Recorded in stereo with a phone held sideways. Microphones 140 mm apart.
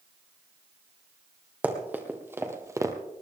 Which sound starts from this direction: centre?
Running footsteps, at 1.6 s.